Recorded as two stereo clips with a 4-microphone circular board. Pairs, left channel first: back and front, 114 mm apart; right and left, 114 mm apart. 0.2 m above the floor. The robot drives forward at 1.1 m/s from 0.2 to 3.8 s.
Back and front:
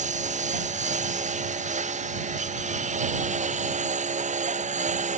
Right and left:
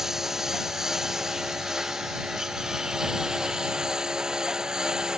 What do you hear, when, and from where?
0.0 s a lawn mower: 5° left